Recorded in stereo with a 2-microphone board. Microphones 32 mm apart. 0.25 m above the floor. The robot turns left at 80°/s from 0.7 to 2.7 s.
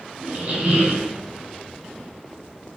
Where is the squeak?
55° right, 1.1 m; by 1.1 s 90° right, 1.1 m.